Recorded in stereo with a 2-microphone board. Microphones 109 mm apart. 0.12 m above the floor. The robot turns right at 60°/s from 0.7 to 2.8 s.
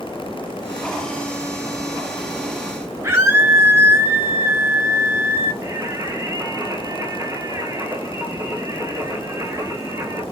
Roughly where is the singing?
Right.